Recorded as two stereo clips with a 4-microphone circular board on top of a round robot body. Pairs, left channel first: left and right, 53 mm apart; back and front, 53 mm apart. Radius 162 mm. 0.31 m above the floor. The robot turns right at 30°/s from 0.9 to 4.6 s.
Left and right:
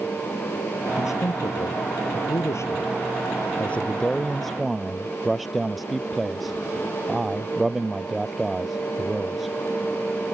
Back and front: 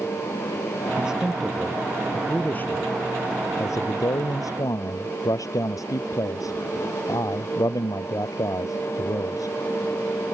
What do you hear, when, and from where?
1.0 s a man speaking: 75° left; by 9.6 s 175° right